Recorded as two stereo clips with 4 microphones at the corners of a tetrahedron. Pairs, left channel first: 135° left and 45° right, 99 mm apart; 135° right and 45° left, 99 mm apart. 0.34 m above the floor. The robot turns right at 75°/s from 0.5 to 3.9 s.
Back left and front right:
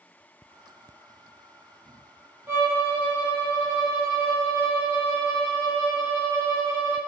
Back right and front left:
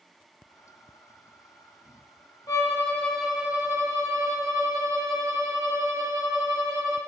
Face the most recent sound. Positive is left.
turn(degrees=5)